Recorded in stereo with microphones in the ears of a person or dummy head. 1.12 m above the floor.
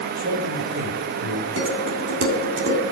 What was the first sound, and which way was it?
A man speaking, 70° right (ahead or behind).